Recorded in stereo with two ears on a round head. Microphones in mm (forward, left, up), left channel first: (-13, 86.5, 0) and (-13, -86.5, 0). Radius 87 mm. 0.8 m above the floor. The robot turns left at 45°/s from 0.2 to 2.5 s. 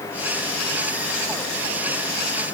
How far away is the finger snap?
No finger snap in this recording.